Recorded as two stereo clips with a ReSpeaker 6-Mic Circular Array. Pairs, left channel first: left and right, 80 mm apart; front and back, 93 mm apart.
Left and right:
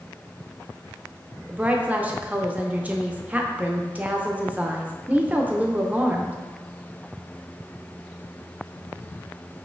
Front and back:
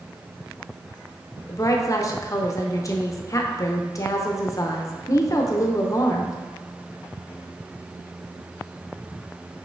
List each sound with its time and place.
1.5 s a woman speaking: 30° right, 0.5 m